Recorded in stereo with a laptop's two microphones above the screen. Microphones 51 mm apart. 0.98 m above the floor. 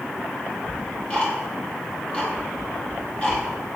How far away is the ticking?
About 4.5 m.